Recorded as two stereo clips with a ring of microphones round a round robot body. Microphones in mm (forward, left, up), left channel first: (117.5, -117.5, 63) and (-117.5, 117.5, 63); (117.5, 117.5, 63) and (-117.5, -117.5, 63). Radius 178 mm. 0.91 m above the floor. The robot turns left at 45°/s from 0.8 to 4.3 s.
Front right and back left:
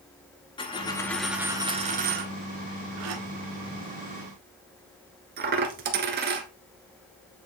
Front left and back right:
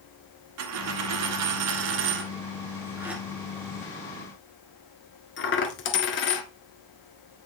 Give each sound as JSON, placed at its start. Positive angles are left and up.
{"t": 0.6, "sound": "a dropped coin", "azimuth_deg": -115, "distance_m": 1.0}